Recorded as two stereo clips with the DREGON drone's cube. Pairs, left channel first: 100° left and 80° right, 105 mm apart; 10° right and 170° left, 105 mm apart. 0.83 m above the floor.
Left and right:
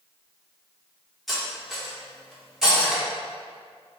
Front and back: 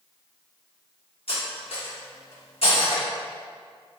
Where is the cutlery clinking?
10° left, 1.2 m.